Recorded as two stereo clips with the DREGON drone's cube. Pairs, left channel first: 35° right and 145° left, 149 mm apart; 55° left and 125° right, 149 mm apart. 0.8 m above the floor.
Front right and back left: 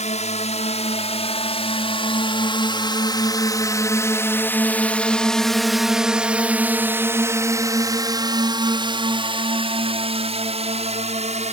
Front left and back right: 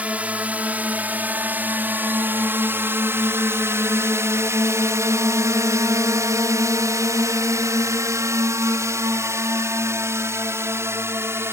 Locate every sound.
0.0 s a drone: 45° right; by 11.5 s 165° left